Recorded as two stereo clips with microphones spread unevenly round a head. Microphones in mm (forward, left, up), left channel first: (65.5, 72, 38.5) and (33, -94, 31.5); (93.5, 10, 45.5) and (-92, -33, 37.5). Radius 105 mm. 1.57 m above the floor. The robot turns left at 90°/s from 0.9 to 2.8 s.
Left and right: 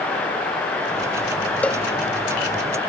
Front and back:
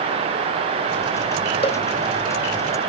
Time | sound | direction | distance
1.6 | a cowbell | 15° left | ?